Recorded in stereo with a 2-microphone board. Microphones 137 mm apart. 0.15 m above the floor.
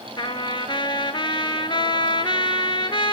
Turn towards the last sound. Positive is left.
turn(degrees=35)  # may be behind; listen again after turning